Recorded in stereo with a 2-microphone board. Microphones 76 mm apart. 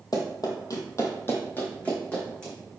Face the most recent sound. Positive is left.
turn(degrees=10)  # may be behind; listen again after turning